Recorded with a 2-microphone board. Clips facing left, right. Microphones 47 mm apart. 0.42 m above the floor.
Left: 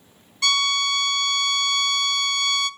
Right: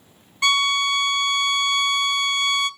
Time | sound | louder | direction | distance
0.4 | a violin | right 2 dB | 20° right (ahead or behind) | 0.6 m